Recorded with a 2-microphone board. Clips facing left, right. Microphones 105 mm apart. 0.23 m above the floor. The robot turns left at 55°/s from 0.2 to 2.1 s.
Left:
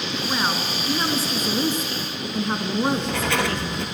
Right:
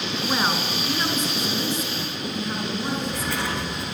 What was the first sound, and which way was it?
A woman speaking, 165° right.